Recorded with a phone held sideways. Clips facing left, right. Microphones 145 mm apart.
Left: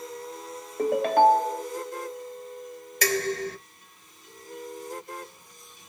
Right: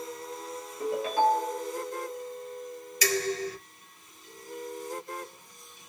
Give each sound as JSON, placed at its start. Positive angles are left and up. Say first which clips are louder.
{"t": 0.8, "sound": "a ringtone", "louder": "left 6 dB", "side_deg": 65, "distance_m": 0.5}
{"t": 3.0, "sound": "dishes clattering", "louder": "left 2 dB", "side_deg": 55, "distance_m": 0.9}